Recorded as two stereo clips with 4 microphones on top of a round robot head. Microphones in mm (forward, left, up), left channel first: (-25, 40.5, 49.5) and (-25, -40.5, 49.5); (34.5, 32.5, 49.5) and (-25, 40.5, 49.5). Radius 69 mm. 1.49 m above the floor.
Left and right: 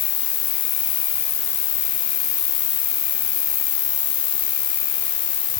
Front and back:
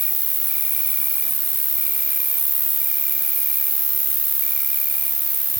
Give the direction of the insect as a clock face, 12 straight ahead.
9 o'clock.